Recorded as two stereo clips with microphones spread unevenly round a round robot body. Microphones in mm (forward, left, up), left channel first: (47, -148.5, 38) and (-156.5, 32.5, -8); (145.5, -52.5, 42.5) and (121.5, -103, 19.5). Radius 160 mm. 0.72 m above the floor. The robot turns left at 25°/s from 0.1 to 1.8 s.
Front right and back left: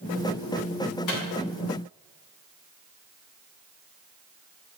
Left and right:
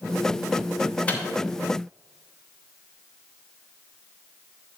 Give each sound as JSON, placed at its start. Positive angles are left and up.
{"t": 1.1, "sound": "a microwave", "azimuth_deg": -10, "distance_m": 1.6}